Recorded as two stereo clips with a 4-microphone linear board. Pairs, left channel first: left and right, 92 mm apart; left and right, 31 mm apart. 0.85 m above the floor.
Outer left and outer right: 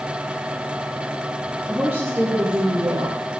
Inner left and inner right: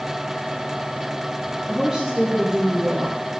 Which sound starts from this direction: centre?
A woman speaking, at 1.7 s.